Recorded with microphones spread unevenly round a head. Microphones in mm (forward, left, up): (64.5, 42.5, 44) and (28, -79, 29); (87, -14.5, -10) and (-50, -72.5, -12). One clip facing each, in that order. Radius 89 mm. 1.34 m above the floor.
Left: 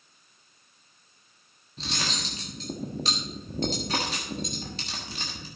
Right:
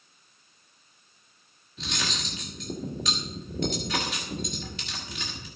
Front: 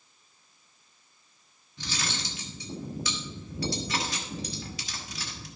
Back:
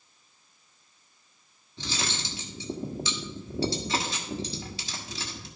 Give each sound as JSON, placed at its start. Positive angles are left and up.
{"t": 1.8, "sound": "cutlery clinking", "azimuth_deg": 135, "distance_m": 1.3}